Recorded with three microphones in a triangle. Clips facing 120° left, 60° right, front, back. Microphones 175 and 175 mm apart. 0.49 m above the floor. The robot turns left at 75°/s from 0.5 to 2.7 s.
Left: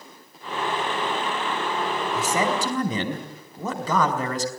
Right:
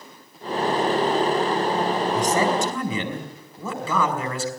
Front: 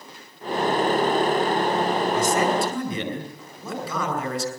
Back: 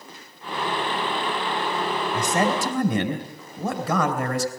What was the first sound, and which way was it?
A man speaking, 150° right.